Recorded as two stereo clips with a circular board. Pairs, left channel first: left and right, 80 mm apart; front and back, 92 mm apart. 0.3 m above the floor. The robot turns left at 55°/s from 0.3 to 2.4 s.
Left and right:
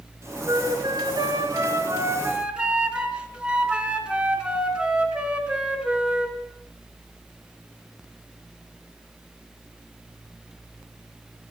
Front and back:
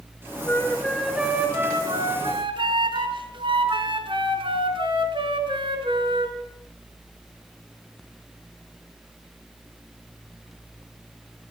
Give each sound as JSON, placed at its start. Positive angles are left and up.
{"t": 0.5, "sound": "a flute", "azimuth_deg": -60, "distance_m": 3.5}